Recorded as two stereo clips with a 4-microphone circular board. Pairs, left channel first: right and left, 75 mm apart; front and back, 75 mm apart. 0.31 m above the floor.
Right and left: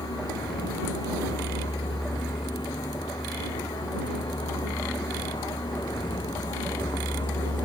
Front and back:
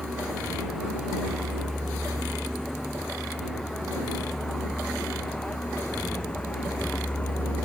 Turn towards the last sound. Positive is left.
turn(degrees=-75)